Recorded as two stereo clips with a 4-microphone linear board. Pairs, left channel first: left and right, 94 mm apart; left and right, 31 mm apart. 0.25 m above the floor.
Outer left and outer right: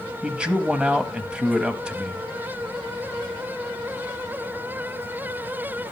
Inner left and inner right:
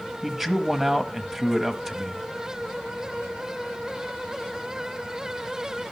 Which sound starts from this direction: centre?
A man speaking, at 0.2 s.